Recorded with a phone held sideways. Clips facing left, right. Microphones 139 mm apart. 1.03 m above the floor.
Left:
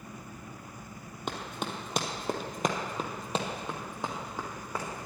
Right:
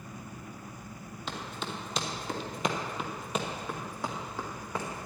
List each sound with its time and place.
1.3 s running footsteps: 50° left (ahead or behind), 1.9 m; by 5.1 s 10° left (ahead or behind), 3 m